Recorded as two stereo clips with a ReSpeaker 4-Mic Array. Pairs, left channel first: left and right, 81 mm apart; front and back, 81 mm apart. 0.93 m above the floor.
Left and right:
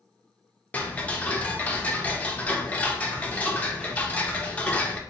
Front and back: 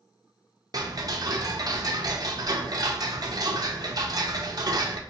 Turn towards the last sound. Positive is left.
turn(degrees=160)